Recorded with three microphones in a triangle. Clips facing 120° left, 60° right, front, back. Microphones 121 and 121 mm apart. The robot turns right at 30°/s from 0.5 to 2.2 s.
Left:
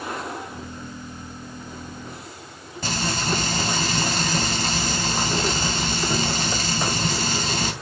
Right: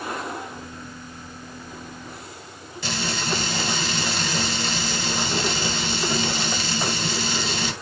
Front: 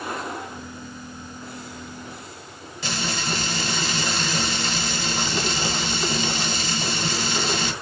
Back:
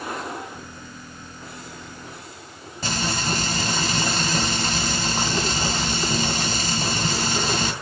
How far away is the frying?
About 2.5 m.